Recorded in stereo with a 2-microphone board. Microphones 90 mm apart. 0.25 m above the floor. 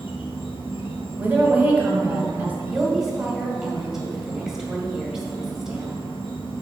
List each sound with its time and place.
0.0 s an insect: 85° left, 1.2 m
1.2 s a woman speaking: 20° right (ahead or behind), 1.3 m
2.7 s a woman speaking: 5° right (ahead or behind), 1.4 m